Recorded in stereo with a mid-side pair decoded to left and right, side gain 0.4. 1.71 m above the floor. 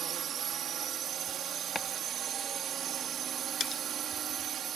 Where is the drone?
65° right.